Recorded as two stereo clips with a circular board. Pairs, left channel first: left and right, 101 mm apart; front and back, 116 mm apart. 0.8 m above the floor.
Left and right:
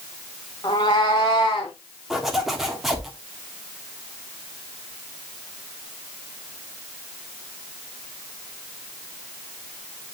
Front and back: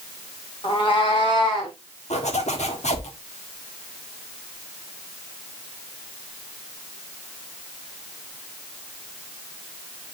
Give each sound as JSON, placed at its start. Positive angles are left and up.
{"t": 0.6, "sound": "a cat meowing", "azimuth_deg": 40, "distance_m": 1.8}
{"t": 2.1, "sound": "a zipper", "azimuth_deg": 0, "distance_m": 1.4}